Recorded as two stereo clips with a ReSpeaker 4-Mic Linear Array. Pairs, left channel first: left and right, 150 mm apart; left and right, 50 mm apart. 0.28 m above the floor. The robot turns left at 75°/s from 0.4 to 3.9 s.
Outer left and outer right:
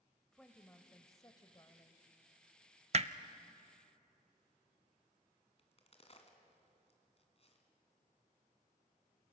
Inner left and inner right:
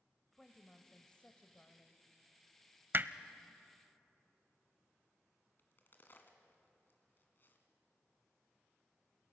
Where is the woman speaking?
5° left (ahead or behind), 1.0 m; by 2.0 s 15° left (ahead or behind), 1.0 m.